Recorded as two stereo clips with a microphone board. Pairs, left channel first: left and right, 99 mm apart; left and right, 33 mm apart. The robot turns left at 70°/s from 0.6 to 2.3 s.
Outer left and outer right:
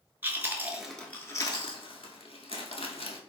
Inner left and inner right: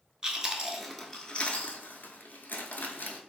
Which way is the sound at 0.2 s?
20° right (ahead or behind).